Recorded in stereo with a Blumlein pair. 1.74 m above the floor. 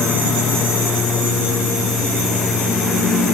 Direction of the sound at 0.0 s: 25° left.